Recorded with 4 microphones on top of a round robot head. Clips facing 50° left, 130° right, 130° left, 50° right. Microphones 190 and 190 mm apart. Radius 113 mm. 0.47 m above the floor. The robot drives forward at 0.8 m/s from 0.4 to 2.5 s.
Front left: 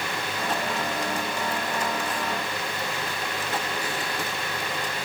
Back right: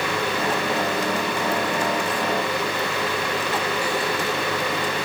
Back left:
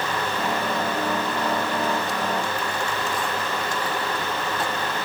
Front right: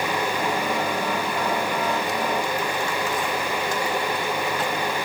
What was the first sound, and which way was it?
Only background noise.